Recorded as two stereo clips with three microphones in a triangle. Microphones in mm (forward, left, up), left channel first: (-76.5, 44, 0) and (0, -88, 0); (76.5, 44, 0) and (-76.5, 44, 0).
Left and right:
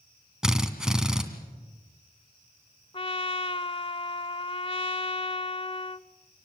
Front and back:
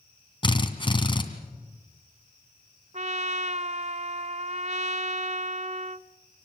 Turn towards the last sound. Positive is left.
turn(degrees=165)